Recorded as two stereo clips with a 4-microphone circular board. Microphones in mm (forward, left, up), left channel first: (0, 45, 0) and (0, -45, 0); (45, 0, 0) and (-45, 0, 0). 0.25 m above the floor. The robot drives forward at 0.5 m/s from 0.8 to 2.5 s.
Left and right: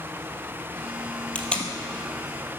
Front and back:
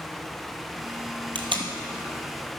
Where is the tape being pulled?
165° left, 1.2 m; by 1.7 s 170° left, 1.3 m.